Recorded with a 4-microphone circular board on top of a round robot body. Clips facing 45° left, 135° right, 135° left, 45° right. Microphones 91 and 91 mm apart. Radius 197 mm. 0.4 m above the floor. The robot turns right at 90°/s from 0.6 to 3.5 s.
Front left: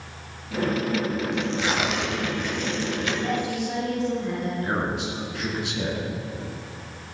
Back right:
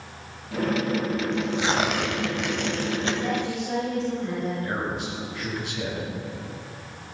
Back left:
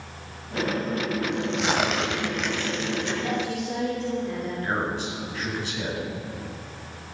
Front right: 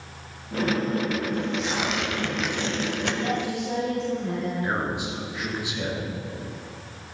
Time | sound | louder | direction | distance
1.3 | tearing paper | back right 1 dB, back left 2 dB | 125° left | 1.5 m
3.2 | a woman speaking | front left 1 dB, front right 1 dB | 60° right | 6.5 m
4.6 | a man speaking | front left 2 dB, even | 30° left | 5.5 m